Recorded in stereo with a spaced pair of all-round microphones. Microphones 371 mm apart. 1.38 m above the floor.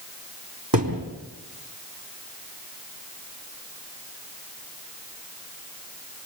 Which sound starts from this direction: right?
A thud, at 0.7 s.